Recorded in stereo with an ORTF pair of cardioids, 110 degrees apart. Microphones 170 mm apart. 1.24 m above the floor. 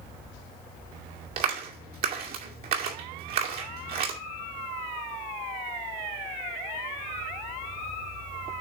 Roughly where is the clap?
Ahead right.